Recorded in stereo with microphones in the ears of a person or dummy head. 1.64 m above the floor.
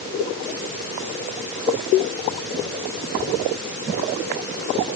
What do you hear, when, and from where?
Only background noise.